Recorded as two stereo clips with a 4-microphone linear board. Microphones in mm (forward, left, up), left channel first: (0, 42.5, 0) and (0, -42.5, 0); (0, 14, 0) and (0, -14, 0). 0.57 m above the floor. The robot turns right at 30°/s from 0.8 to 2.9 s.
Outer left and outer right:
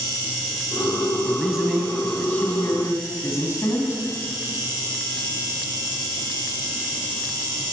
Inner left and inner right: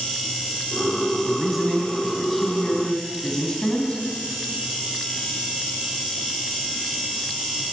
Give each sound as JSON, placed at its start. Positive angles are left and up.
{"t": 1.2, "sound": "a man speaking", "azimuth_deg": -15, "distance_m": 4.0}